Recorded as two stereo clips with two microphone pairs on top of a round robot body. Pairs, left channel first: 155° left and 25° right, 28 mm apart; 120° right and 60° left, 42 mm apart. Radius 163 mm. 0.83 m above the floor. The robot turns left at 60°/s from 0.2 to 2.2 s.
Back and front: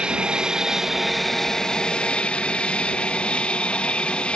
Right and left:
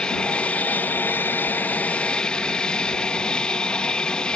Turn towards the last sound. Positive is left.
turn(degrees=-175)